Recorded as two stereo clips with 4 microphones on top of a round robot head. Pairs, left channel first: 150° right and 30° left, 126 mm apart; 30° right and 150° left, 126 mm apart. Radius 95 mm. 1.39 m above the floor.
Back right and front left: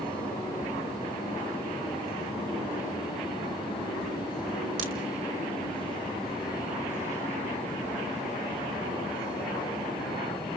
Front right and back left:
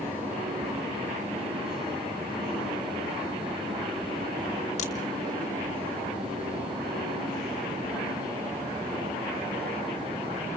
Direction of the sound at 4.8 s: 5° left.